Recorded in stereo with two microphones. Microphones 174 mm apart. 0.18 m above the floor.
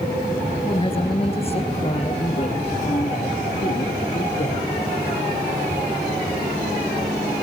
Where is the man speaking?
30° left (ahead or behind), 3.5 m; by 4.7 s 45° left (ahead or behind), 6 m.